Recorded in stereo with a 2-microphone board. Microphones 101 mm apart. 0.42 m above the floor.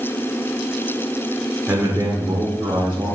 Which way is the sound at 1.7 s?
20° right (ahead or behind).